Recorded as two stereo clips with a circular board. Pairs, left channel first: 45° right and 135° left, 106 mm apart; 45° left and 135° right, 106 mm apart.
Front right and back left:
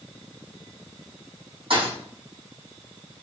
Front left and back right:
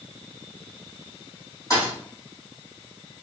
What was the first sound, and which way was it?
A thud, 100° left.